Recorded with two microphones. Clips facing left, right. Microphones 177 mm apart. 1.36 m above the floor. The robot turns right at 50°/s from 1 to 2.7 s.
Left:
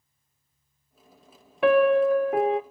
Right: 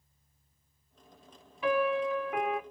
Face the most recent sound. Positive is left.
turn(degrees=155)